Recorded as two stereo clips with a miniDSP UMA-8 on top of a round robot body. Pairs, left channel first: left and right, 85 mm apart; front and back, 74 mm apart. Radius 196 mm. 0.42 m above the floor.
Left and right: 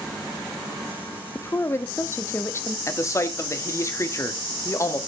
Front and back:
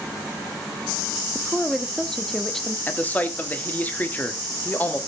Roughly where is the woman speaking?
Left.